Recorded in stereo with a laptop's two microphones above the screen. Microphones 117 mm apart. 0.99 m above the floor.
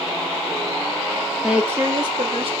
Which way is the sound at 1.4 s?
Centre (ahead or behind).